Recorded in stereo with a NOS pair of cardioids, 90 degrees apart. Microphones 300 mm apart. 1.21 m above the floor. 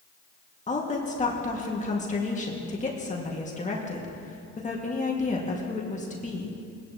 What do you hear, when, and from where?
0.7 s a woman speaking: 25° left, 2.0 m